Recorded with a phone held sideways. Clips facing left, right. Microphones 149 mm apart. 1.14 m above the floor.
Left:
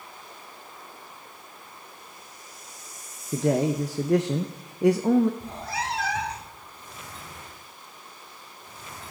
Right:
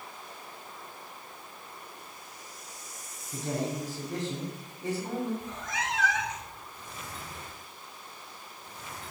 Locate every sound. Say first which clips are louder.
3.3 s a man speaking: left 9 dB; 80° left, 0.6 m
5.4 s a cat meowing: left 3 dB; 35° left (ahead or behind), 0.7 m